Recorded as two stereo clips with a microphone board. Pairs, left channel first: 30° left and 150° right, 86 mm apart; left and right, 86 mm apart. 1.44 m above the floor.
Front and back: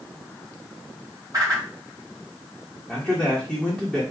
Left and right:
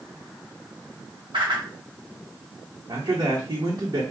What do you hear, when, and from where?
1.3 s a whoosh: 100° right, 1.9 m
2.9 s a man speaking: 60° right, 1.5 m